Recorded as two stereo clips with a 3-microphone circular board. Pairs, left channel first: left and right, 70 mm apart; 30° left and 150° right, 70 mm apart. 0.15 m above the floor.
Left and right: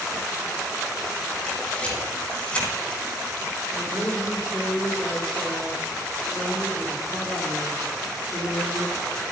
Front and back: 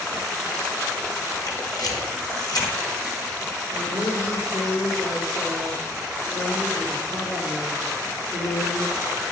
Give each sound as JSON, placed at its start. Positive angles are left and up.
{"t": 1.5, "sound": "a camera shutter", "azimuth_deg": 20, "distance_m": 5.5}
{"t": 3.7, "sound": "a woman speaking", "azimuth_deg": 15, "distance_m": 6.0}